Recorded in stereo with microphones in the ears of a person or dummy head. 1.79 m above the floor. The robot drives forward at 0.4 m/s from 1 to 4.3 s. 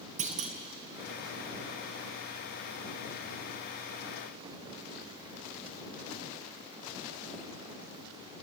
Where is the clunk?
45° right (ahead or behind), 1.5 m.